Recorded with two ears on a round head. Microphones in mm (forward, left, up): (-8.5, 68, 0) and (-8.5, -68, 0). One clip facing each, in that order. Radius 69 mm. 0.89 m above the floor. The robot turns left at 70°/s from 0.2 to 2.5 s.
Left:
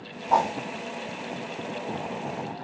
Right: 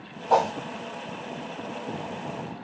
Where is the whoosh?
55° right (ahead or behind), 3 m; by 0.5 s 40° right (ahead or behind), 3 m.